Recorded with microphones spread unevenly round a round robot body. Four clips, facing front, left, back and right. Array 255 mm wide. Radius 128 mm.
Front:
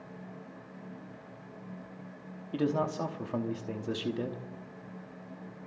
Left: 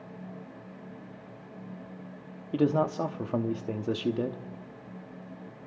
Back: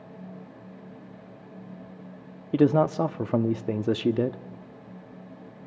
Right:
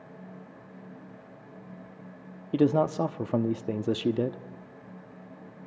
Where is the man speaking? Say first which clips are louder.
Right 2 dB, back 9 dB; 165° right, 0.9 m.